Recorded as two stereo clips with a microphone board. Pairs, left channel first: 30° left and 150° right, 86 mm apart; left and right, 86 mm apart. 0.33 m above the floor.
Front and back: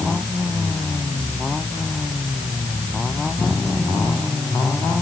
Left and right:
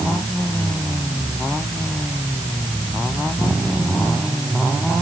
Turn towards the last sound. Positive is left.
No sound to turn to.